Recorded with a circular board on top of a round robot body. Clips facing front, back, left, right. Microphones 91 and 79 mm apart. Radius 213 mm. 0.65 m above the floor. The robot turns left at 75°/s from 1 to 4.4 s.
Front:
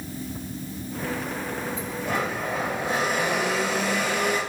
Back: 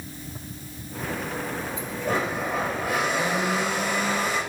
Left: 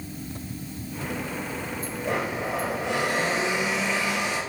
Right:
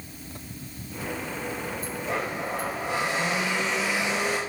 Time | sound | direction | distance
2.0 | a blender | 130° left | 3.5 m